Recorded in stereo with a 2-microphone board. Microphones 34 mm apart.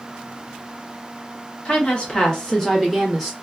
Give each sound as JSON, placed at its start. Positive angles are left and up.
{"t": 1.6, "sound": "a woman speaking", "side_deg": 35, "distance_m": 1.1}